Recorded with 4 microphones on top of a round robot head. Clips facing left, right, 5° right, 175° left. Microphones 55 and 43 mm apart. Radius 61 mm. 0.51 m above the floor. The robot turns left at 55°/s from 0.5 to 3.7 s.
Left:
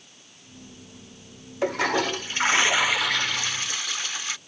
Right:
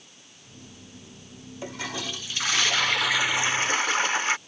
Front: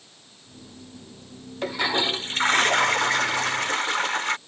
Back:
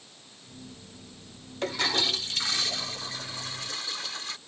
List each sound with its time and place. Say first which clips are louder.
1.6 s a toilet flushing: left 11 dB, front 4 dB; 80° left; by 4.4 s 35° right